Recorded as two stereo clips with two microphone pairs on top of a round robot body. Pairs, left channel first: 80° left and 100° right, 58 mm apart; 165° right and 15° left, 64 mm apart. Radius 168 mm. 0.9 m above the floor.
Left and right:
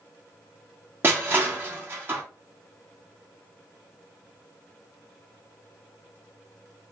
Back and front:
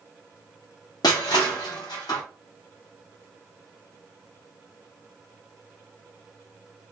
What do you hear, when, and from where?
1.0 s crushing: 155° right, 1.4 m